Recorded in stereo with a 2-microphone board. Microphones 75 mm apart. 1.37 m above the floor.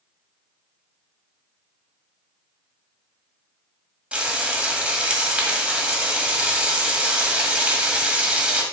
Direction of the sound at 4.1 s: 15° right (ahead or behind).